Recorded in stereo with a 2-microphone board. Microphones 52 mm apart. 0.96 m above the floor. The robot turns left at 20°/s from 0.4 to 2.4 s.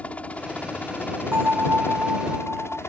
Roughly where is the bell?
Right.